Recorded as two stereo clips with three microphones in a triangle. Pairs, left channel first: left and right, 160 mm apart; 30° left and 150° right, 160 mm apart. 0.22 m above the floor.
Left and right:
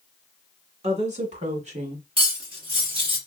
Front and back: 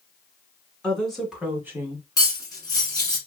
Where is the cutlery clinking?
35° right, 1.4 m.